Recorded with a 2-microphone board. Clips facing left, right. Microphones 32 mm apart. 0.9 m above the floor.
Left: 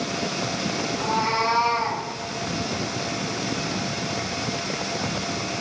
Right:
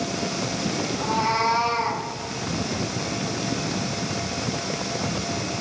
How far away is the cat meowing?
About 4.5 m.